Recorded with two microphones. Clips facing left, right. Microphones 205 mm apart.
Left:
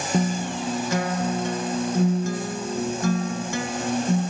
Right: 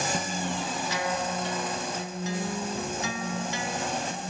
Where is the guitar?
50° left (ahead or behind), 0.6 m.